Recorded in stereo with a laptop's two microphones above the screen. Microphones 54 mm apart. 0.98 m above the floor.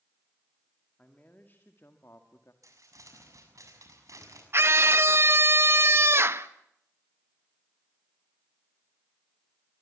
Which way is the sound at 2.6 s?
75° right (ahead or behind).